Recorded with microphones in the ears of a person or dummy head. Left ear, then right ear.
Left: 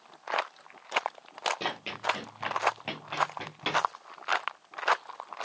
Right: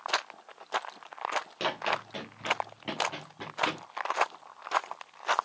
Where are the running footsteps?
20° right (ahead or behind), 1.2 m; by 3.8 s 35° left (ahead or behind), 1.7 m.